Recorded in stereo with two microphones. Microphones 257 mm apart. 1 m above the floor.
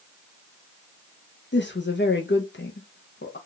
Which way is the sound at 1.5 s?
45° left (ahead or behind).